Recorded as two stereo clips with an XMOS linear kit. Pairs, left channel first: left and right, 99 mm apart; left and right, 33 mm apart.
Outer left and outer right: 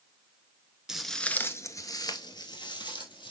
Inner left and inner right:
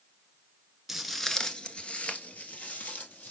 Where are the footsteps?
5° right (ahead or behind), 1.1 m; by 3.3 s 50° left (ahead or behind), 2.5 m.